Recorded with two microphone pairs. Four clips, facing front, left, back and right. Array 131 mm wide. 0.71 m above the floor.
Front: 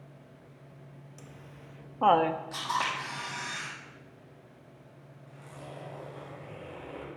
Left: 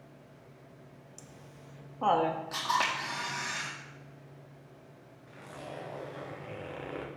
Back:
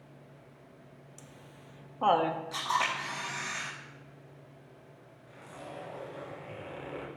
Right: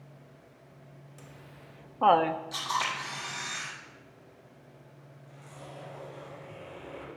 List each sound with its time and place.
1.2 s laughter: 70° right, 0.6 m
2.5 s a camera shutter: 70° left, 4 m
5.3 s a zipper: 90° left, 3 m